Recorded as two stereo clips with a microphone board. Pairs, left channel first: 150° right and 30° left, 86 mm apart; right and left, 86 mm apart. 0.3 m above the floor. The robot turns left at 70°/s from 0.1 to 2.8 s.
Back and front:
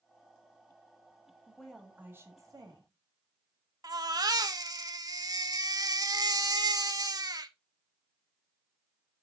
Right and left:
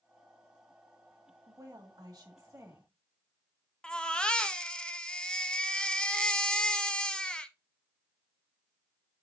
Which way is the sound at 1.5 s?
130° left.